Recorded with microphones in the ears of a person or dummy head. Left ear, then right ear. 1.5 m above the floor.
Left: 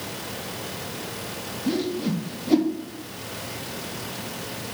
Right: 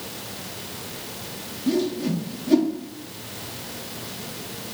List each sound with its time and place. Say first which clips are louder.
1.7 s a whoosh: right 3 dB; 15° left (ahead or behind), 0.9 m